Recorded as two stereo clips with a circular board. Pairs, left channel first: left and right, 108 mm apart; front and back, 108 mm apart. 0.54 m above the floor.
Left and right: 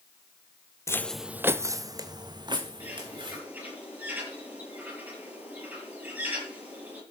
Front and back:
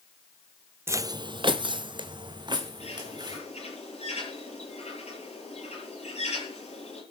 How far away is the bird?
About 8.5 m.